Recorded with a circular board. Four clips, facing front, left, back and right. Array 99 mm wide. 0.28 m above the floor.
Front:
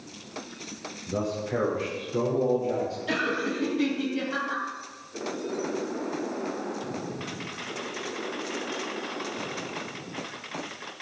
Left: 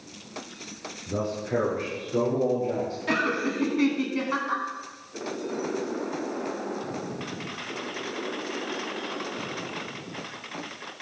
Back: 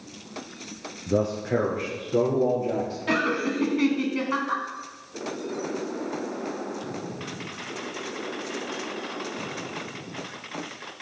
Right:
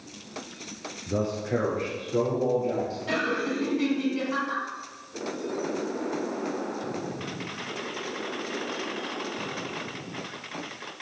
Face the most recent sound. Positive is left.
turn(degrees=145)